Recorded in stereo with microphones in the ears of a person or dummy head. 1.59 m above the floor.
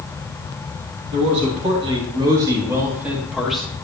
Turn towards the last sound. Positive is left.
turn(degrees=0)  # may be behind; listen again after turning